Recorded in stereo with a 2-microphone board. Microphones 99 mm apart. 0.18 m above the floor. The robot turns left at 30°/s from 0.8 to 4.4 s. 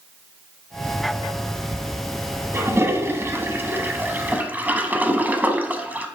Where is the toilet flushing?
25° right (ahead or behind), 0.7 m; by 6.1 s 20° right (ahead or behind), 0.7 m.